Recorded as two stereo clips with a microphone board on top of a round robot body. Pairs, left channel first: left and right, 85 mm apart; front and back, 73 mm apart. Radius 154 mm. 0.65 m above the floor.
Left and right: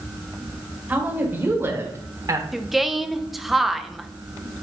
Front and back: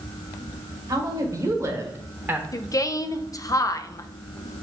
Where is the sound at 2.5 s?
5° right, 0.8 m.